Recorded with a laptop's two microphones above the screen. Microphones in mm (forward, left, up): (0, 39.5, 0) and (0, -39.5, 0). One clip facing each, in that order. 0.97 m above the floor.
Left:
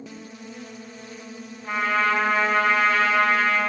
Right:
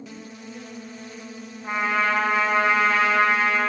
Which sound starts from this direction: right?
A trumpet, at 1.6 s.